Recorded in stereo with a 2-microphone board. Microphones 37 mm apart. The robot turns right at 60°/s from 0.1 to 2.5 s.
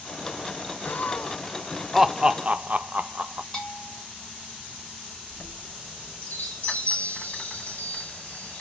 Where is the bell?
25° left (ahead or behind), 3 m.